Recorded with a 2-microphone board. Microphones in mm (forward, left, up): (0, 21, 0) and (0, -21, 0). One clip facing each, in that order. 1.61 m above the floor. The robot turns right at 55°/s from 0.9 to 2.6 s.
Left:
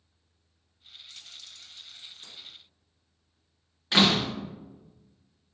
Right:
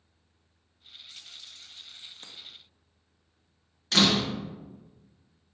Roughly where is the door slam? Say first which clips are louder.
Left 1 dB; centre.